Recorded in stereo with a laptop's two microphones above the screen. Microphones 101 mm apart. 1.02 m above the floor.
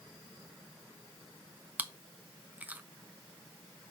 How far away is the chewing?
About 0.6 m.